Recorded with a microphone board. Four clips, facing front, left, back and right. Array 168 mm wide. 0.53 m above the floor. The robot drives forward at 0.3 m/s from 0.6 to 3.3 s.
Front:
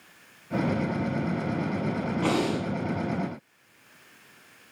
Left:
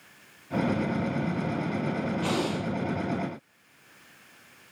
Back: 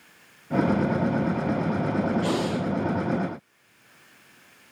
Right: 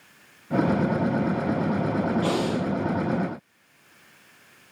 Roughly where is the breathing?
Ahead.